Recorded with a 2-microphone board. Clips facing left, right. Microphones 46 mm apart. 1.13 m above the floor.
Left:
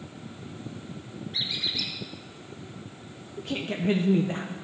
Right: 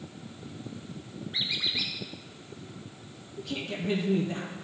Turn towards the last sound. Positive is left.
turn(degrees=35)  # may be behind; listen again after turning